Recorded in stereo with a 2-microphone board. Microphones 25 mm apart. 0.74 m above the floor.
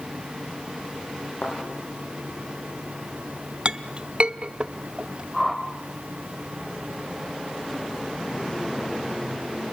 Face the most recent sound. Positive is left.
turn(degrees=0)  # may be behind; listen again after turning